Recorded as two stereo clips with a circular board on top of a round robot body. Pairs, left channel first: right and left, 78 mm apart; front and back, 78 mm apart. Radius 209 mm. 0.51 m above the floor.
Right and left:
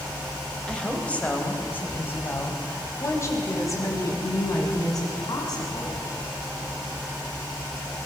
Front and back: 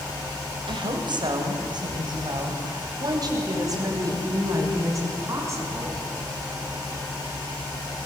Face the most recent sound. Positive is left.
turn(degrees=-125)